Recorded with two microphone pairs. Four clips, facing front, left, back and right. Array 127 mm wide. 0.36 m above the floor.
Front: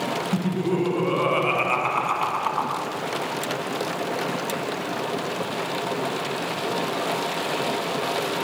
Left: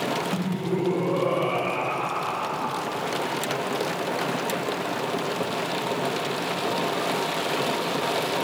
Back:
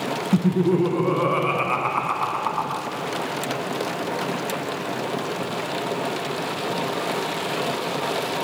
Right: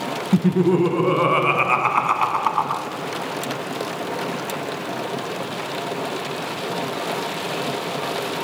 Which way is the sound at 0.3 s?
105° right.